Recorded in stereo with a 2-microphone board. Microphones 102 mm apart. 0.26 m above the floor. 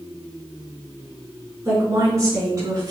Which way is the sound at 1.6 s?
30° right (ahead or behind).